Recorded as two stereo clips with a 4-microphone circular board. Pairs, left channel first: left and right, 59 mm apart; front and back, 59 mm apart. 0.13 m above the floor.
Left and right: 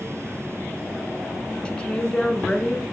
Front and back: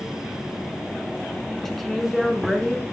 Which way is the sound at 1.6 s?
75° left.